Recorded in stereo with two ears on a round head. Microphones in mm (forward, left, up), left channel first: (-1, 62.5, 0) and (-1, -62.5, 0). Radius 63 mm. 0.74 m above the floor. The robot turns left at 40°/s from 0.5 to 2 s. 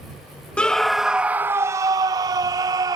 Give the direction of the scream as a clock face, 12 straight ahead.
12 o'clock.